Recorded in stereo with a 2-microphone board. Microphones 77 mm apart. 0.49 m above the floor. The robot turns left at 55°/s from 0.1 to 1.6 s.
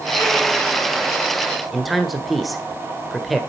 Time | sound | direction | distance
1.7 | a man speaking | centre (ahead or behind) | 1.3 m